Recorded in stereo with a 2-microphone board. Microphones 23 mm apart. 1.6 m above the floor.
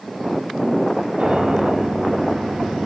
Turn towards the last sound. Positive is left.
turn(degrees=-80)